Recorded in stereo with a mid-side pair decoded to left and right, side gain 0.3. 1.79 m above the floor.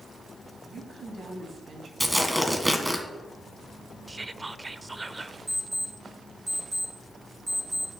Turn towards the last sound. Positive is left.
turn(degrees=-20)